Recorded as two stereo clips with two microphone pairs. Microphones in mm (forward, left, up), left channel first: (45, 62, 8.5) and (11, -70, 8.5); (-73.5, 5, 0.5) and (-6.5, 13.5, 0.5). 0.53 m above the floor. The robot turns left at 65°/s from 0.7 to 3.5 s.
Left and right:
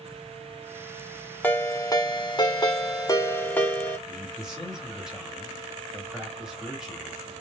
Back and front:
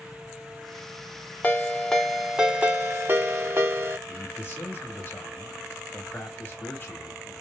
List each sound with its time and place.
1.4 s a ringtone: 145° left, 0.7 m; by 4.0 s 10° left, 0.7 m
4.1 s a man speaking: 170° left, 1.4 m